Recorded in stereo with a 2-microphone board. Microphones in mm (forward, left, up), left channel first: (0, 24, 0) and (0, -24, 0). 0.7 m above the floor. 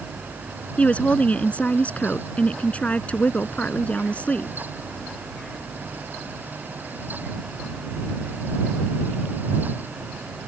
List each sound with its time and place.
0.8 s a woman speaking: 30° left (ahead or behind)